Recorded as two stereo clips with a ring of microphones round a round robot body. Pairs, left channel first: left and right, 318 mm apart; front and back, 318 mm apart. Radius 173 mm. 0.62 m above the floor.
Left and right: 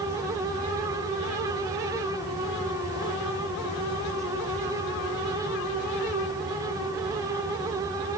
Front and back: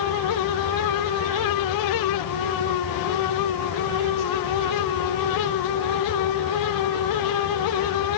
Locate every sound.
Only background noise.